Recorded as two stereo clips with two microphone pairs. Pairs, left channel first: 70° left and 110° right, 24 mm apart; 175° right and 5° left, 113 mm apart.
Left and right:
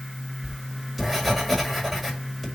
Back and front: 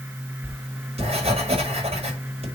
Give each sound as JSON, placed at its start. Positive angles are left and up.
{"t": 0.4, "sound": "writing", "azimuth_deg": -20, "distance_m": 6.0}